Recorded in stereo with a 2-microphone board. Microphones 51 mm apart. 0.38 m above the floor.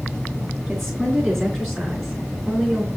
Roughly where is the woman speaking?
Centre.